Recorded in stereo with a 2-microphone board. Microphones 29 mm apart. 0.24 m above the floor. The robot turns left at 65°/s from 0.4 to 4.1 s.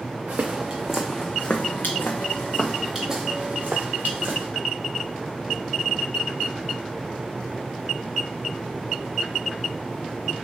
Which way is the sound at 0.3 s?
65° right (ahead or behind).